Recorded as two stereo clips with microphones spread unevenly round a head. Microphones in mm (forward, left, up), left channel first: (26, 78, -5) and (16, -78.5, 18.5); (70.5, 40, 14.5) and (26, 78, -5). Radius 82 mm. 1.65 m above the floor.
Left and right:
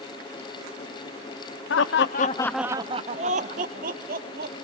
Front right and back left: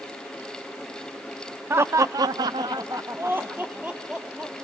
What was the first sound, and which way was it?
Laughter, 90° left.